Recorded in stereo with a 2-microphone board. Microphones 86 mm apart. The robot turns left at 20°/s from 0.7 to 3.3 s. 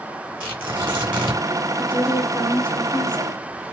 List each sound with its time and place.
0.4 s tearing paper: 20° right (ahead or behind), 2 m; by 1.4 s 10° right (ahead or behind), 2 m
1.8 s a woman speaking: 20° right (ahead or behind), 1.5 m; by 3.4 s 25° right (ahead or behind), 1.5 m